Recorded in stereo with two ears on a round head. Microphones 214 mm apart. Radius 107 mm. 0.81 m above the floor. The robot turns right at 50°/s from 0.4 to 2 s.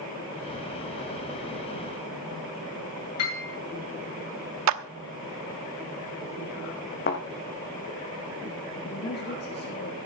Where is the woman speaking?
45° left (ahead or behind), 1.5 m.